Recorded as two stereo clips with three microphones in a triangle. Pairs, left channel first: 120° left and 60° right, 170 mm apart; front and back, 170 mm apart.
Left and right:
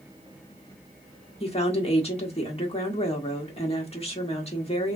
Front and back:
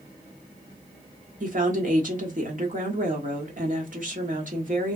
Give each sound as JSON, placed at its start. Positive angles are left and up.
{"t": 1.4, "sound": "a woman speaking", "azimuth_deg": 165, "distance_m": 1.2}